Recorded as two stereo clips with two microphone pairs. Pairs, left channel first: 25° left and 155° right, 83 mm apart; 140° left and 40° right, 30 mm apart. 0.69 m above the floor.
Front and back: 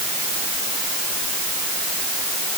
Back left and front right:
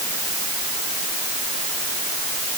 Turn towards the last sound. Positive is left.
No sound to turn to.